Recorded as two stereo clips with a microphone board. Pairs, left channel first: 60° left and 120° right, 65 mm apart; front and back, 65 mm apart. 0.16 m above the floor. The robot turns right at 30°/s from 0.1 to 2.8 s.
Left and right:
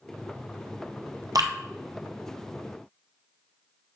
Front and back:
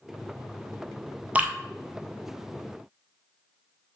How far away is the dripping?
About 1.2 m.